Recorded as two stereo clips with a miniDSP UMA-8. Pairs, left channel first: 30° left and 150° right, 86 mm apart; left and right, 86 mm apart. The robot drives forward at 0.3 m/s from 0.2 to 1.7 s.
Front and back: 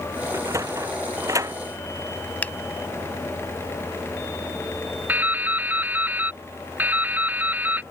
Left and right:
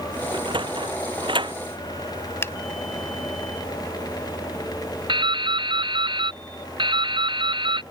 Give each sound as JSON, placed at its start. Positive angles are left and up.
{"t": 0.3, "sound": "a sliding door", "azimuth_deg": -100}
{"t": 2.4, "sound": "a finger snap", "azimuth_deg": 80}
{"t": 5.1, "sound": "dripping", "azimuth_deg": -80}